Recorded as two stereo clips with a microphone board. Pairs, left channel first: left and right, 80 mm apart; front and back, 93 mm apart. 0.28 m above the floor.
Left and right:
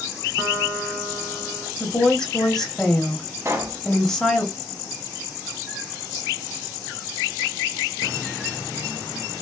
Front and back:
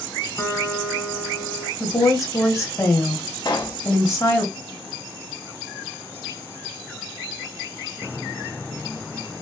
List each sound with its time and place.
0.4 s a guitar: 50° right, 1.9 m
1.8 s a woman speaking: 15° left, 1.0 m
3.5 s a pop: 40° right, 0.8 m